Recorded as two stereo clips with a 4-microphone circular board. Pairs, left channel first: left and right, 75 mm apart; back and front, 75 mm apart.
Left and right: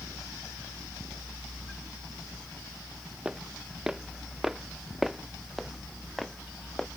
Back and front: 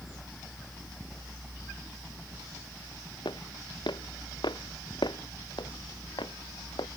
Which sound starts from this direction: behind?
Footsteps, at 3.2 s.